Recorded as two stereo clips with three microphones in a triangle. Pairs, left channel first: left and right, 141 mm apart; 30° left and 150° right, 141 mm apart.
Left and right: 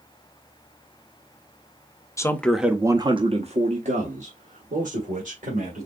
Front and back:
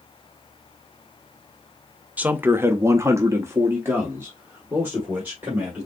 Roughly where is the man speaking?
Behind left.